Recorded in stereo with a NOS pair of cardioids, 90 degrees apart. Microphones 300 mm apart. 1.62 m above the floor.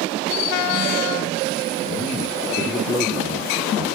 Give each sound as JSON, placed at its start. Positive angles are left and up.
{"t": 1.8, "sound": "a man speaking", "azimuth_deg": 40, "distance_m": 1.1}